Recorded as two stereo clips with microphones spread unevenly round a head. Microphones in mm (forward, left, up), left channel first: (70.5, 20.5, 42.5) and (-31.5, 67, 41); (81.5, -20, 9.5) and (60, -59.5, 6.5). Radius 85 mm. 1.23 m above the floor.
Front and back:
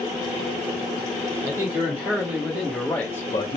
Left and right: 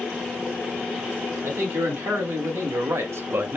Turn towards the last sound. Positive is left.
turn(degrees=-75)